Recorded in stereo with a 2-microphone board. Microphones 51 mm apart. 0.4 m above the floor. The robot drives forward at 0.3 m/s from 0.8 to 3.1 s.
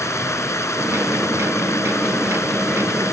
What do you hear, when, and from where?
0.0 s running water: 80° left; by 3.1 s 75° left (ahead or behind)